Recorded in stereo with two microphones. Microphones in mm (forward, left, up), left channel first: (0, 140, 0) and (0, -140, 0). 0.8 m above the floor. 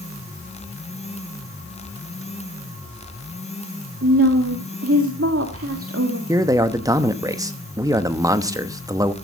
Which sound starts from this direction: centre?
A man speaking, at 6.3 s.